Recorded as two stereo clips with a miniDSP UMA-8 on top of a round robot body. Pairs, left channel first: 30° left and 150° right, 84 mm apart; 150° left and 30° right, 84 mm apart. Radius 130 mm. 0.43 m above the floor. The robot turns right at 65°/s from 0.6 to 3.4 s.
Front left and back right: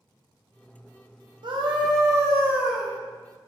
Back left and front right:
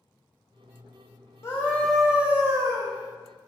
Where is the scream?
155° right, 1.8 m; by 2.9 s 60° right, 1.8 m.